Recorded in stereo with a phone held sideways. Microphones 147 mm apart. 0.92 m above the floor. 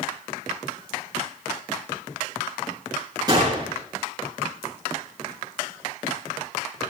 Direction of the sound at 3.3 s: 30° right (ahead or behind).